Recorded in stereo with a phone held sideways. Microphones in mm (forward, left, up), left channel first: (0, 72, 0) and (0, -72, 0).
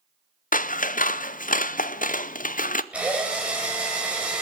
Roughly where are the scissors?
Left.